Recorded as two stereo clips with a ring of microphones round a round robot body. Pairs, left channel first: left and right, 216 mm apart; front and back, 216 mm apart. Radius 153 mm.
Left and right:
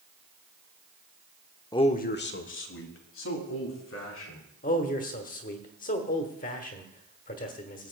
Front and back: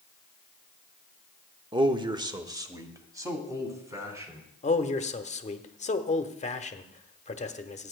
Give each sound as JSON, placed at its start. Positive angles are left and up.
{"t": 1.7, "sound": "a man speaking", "azimuth_deg": 140, "distance_m": 0.8}
{"t": 4.6, "sound": "a man speaking", "azimuth_deg": 45, "distance_m": 1.1}